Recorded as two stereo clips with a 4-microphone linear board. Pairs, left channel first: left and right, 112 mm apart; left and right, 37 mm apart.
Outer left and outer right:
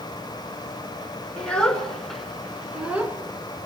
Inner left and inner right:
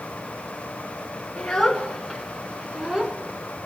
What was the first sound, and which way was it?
A child speaking, 10° left (ahead or behind).